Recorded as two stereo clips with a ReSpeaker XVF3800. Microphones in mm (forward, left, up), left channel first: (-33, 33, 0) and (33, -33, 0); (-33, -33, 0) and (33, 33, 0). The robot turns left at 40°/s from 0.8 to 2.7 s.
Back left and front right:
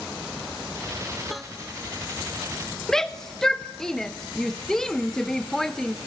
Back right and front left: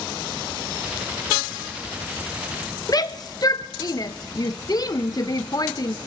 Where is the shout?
140° right, 0.6 m.